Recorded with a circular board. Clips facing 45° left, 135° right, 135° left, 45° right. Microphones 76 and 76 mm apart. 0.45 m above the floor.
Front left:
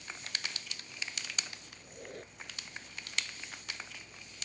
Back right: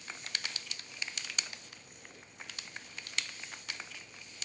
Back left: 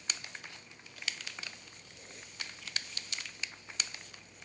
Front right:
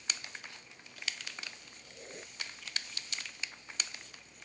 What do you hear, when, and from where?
1.8 s a squeak: 15° left